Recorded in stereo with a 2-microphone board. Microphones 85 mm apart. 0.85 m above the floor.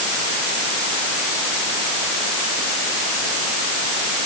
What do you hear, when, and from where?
Only background noise.